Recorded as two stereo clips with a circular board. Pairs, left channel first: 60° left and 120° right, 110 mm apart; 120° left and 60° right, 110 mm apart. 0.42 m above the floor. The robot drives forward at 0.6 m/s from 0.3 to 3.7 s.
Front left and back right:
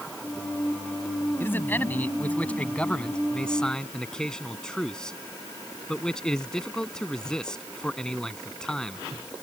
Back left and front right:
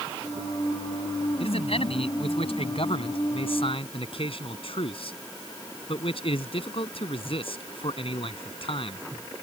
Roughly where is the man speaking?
Behind left.